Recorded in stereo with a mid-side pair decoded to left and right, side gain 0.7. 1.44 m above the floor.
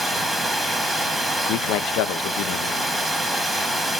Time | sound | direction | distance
0.0 | running water | 5° right | 1.5 m
1.4 | a man speaking | 65° left | 0.5 m